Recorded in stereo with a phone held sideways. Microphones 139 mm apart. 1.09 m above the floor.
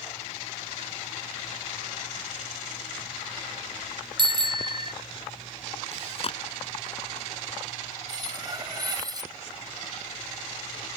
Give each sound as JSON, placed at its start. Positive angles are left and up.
{"t": 4.2, "sound": "a bicycle bell", "side_deg": -35}
{"t": 5.9, "sound": "chewing", "side_deg": 45}
{"t": 8.1, "sound": "cutlery clinking", "side_deg": -30}